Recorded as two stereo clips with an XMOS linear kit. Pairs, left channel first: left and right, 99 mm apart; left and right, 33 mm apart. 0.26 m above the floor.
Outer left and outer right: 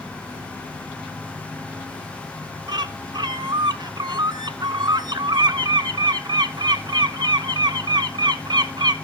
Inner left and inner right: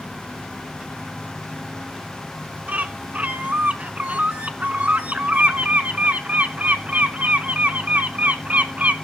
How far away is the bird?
About 0.6 m.